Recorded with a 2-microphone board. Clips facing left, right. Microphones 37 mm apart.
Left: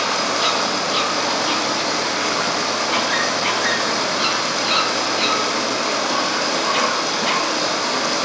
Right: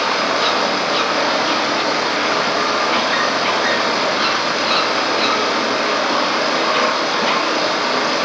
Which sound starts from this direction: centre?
Running water, at 0.0 s.